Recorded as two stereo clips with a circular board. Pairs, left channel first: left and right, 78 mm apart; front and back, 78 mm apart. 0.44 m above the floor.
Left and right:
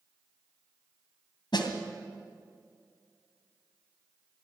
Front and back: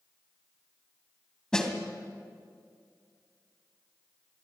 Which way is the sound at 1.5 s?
80° left.